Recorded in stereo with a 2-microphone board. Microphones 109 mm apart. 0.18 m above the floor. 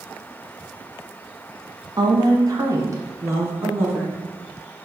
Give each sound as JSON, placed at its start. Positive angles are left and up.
{"t": 2.0, "sound": "a woman speaking", "side_deg": -40, "distance_m": 1.6}